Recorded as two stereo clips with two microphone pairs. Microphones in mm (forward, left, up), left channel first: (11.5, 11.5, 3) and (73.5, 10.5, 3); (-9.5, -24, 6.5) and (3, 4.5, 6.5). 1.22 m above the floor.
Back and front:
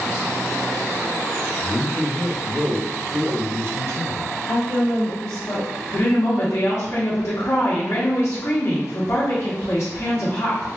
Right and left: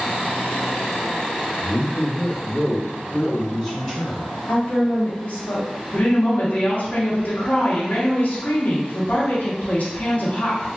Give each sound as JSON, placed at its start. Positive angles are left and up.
{"t": 1.6, "sound": "a man speaking", "azimuth_deg": -60, "distance_m": 0.6}
{"t": 4.5, "sound": "a woman speaking", "azimuth_deg": -140, "distance_m": 1.3}
{"t": 5.9, "sound": "a woman speaking", "azimuth_deg": -140, "distance_m": 0.8}